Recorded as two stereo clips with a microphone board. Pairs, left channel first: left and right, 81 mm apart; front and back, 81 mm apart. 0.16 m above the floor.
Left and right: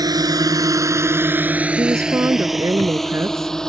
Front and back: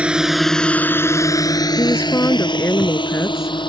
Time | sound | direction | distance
0.0 | a drone | 105° right | ?
1.8 | a woman speaking | 50° right | ?